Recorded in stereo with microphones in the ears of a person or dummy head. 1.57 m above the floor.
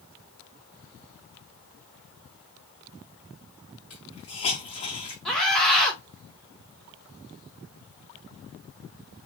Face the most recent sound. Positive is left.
turn(degrees=5)  # may be behind; listen again after turning